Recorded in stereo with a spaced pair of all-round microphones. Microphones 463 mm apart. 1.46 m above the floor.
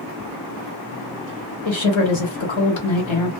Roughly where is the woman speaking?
Left.